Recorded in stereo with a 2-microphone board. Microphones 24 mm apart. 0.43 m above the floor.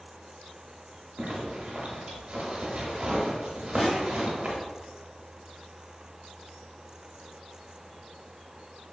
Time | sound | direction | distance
1.2 | a zipper | 50° right (ahead or behind) | 0.5 m
3.8 | a snare drum | 60° left (ahead or behind) | 1.4 m